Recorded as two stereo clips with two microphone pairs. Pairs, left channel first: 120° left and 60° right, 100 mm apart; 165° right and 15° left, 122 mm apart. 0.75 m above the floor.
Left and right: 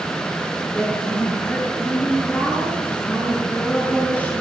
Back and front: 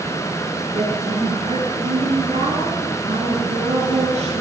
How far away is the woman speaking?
About 9.5 m.